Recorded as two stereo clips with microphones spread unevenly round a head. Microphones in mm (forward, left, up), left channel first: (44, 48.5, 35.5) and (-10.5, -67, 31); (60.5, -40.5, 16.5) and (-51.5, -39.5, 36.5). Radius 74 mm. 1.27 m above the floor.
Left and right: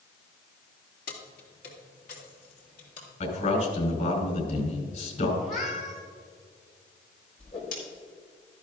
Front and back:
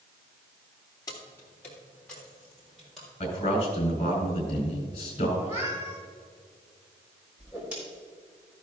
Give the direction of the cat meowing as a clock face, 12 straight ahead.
8 o'clock.